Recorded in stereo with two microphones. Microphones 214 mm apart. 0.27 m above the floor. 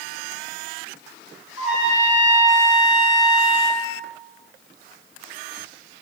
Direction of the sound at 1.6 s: 30° right (ahead or behind).